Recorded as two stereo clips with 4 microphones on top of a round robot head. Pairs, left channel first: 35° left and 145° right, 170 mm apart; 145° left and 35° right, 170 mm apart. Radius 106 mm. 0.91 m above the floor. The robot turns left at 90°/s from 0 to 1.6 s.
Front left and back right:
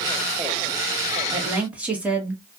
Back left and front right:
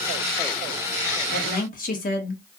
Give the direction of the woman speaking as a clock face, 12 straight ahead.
7 o'clock.